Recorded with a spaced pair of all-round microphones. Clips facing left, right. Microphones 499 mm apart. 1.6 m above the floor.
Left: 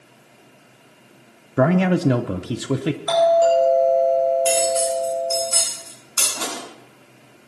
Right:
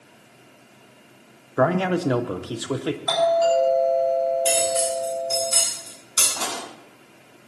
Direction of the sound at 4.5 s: 55° right (ahead or behind).